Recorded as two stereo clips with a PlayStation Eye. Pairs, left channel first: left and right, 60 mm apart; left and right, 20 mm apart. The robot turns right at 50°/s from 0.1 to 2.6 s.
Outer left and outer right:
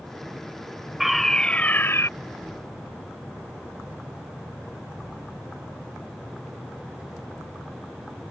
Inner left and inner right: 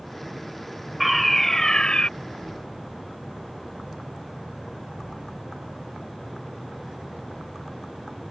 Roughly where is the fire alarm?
Ahead.